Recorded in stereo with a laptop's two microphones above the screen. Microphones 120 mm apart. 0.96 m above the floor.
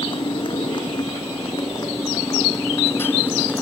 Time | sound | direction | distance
0.0 | a motorcycle | 45° left (ahead or behind) | ?